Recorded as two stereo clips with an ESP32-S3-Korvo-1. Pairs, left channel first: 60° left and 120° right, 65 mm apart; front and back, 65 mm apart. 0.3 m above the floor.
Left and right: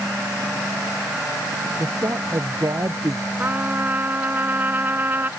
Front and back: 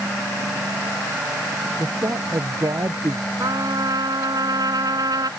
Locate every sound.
1.8 s a man speaking: 155° right
3.4 s a trumpet: straight behind